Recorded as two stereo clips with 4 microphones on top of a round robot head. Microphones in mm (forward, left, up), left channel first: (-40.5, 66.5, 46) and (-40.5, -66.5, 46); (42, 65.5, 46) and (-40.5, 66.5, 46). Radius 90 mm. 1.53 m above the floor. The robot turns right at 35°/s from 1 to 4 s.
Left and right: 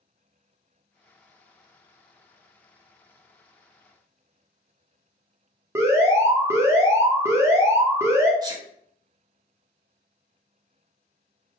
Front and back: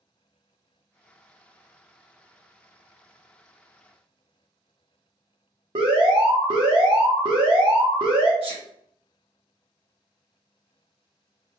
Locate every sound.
5.8 s an alarm: 155° right, 0.7 m
8.4 s a sneeze: 150° right, 1.1 m